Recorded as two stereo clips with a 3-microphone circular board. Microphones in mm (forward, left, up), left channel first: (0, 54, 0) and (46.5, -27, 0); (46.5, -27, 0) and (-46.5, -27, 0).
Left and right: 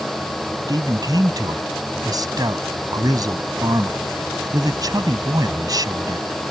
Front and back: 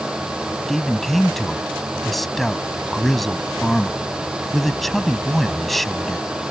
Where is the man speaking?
90° right.